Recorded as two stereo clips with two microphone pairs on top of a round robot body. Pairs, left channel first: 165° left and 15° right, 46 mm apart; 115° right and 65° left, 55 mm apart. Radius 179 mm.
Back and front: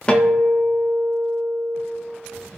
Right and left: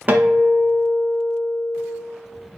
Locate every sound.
0.1 s a guitar: 100° left, 1.3 m